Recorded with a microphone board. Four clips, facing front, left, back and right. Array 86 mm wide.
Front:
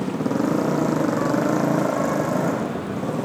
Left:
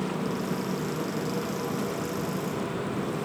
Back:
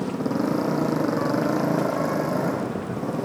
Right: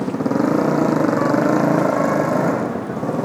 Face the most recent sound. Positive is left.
turn(degrees=-85)